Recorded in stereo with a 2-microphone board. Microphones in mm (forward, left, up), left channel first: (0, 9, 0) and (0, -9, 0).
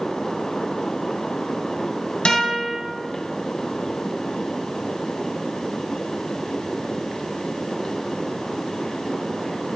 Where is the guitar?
75° left (ahead or behind), 1.5 m.